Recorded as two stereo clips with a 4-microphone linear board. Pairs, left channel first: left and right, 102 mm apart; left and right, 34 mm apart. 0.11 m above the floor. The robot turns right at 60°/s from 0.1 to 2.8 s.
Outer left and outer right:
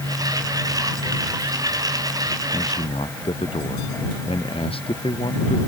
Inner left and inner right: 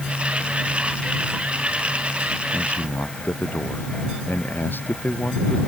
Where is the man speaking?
55° left (ahead or behind); by 5.6 s 70° left (ahead or behind).